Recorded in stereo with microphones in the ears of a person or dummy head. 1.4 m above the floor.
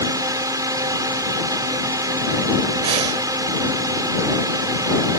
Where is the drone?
20° right (ahead or behind).